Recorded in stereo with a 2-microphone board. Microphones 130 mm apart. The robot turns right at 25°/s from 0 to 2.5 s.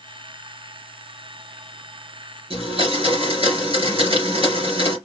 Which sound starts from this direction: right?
A blender, at 2.5 s.